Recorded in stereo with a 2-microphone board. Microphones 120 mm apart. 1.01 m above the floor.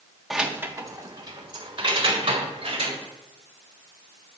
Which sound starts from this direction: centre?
Keys jangling, at 0.3 s.